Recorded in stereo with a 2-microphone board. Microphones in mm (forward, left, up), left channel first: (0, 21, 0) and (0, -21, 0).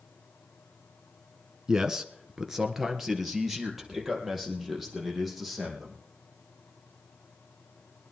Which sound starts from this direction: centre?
A man speaking, at 1.7 s.